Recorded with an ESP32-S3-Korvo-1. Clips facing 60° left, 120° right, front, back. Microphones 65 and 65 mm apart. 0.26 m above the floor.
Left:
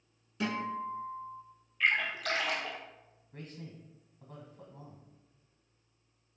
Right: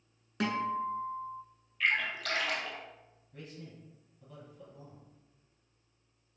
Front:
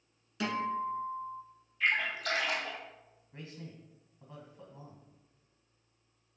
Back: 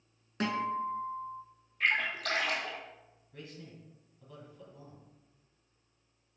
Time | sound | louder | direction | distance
0.4 | a guitar | right 3 dB, back 1 dB | 135° right | 1.2 m
1.8 | a splash | left 1 dB, even | 145° left | 1.4 m
3.3 | a man speaking | left 1 dB, front 1 dB | 55° left | 1.5 m